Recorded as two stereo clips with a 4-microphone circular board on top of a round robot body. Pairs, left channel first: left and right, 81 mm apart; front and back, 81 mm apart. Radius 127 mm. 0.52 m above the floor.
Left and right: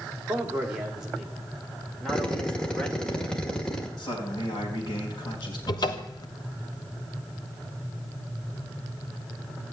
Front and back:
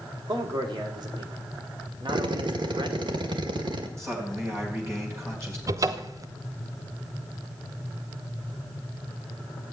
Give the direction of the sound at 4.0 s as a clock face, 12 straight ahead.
8 o'clock.